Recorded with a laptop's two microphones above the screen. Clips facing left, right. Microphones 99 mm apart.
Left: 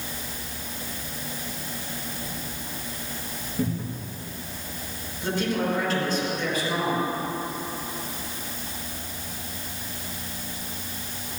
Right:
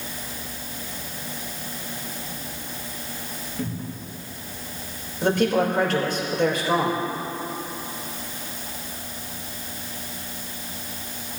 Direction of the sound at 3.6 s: 15° left (ahead or behind).